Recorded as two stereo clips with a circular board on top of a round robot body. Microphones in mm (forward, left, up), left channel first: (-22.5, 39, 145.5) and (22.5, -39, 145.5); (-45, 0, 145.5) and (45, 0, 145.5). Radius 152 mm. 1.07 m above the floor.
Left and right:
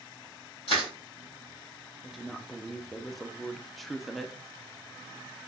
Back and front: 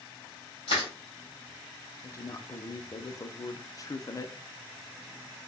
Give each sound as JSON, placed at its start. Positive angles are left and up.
{"t": 0.7, "sound": "crushing", "azimuth_deg": 160, "distance_m": 0.7}
{"t": 2.0, "sound": "a woman speaking", "azimuth_deg": -150, "distance_m": 0.5}